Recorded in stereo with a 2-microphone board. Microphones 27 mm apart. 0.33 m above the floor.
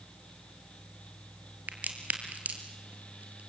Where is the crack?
85° right, 3 m.